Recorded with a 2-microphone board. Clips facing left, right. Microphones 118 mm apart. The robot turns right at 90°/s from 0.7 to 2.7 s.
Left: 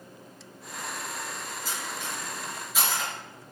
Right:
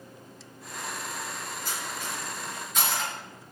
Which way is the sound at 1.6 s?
50° right (ahead or behind).